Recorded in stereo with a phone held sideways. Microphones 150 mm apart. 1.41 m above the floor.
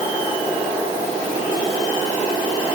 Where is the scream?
No scream in this recording.